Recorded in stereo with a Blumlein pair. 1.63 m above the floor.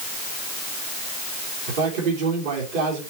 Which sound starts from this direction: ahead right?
A man speaking, at 1.7 s.